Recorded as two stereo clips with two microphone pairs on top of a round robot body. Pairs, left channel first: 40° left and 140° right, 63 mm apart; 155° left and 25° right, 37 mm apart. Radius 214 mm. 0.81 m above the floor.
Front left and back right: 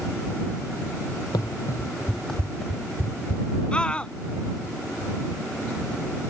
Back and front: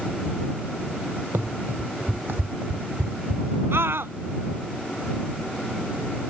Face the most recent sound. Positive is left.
turn(degrees=-35)